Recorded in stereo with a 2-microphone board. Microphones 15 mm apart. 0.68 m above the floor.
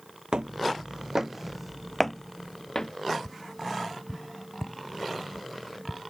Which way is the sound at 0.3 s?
70° right (ahead or behind).